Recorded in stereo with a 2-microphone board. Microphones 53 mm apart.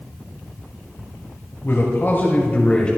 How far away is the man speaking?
About 2 m.